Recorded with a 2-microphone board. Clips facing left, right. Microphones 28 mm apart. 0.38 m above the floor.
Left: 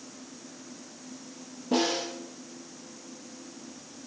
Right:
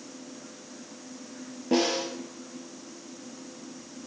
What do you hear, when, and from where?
1.7 s a snare drum: 60° right (ahead or behind), 5.5 m